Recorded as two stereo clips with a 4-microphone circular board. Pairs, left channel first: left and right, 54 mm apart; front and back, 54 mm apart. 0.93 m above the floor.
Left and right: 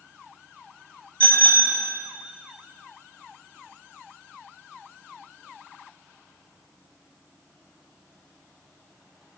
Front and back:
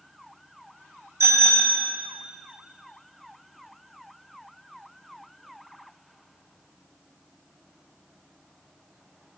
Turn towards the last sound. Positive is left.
turn(degrees=155)